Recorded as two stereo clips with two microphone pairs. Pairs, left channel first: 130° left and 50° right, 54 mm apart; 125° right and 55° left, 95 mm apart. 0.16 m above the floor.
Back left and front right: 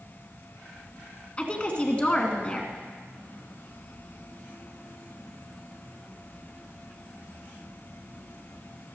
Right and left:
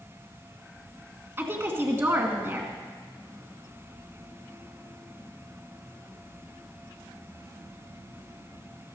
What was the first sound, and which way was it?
A woman speaking, 90° left.